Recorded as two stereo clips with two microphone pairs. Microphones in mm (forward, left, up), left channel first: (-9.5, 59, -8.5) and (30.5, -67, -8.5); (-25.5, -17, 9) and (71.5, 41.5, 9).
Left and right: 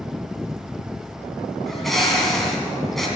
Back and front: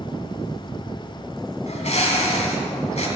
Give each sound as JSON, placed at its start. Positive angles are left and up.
{"t": 1.7, "sound": "a bird", "azimuth_deg": -165, "distance_m": 2.5}